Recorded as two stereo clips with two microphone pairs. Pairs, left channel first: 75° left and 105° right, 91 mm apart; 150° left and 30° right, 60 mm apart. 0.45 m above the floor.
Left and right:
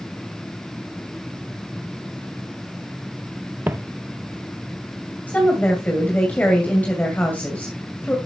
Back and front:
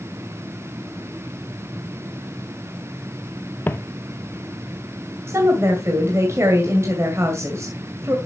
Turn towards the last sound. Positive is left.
turn(degrees=0)